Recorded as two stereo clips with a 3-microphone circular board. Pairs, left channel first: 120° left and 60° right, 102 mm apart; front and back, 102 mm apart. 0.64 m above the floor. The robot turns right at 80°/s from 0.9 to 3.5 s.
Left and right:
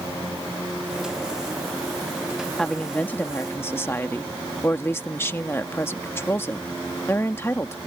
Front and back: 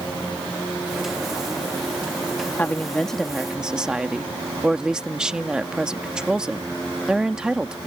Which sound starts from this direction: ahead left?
A woman speaking, at 2.6 s.